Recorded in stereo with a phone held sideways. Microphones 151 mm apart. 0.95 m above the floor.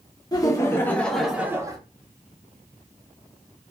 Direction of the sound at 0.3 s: 25° left (ahead or behind).